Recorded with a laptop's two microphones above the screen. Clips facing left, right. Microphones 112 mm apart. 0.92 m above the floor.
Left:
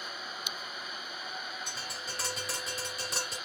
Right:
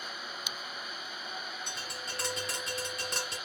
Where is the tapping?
Centre (ahead or behind), 1.2 m.